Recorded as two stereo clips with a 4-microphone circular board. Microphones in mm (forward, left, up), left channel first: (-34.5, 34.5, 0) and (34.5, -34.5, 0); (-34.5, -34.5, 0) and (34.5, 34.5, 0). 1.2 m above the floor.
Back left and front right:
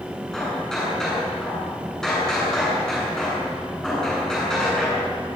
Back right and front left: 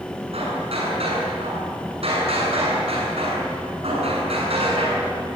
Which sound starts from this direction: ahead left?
Hammering, at 0.3 s.